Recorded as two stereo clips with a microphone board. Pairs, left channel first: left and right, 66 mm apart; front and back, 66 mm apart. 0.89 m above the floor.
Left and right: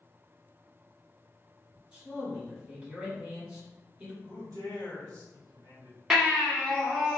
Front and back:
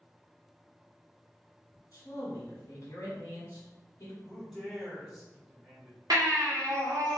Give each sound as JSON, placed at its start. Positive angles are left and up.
{"t": 1.9, "sound": "a man speaking", "azimuth_deg": -15, "distance_m": 1.4}
{"t": 4.2, "sound": "a man speaking", "azimuth_deg": -95, "distance_m": 1.7}
{"t": 6.1, "sound": "a baby crying", "azimuth_deg": -175, "distance_m": 1.1}